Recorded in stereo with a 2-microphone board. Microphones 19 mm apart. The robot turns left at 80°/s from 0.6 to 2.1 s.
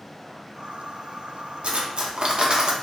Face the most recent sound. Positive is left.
turn(degrees=-130)